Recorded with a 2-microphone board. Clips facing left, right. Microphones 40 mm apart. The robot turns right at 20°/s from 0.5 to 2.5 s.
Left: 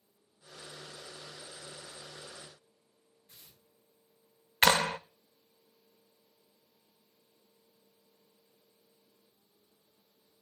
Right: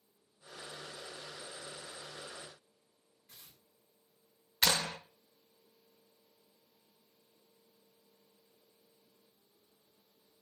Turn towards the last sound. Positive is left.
turn(degrees=45)  # may be behind; listen again after turning